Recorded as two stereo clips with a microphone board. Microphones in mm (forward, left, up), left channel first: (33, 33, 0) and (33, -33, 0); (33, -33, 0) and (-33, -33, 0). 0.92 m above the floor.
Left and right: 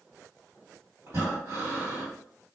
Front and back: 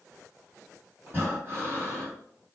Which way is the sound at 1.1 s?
125° right.